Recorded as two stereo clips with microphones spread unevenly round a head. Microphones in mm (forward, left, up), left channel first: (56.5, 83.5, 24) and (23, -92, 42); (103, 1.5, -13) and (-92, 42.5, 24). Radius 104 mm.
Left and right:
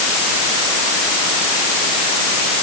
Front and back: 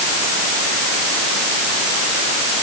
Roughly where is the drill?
I don't hear a drill.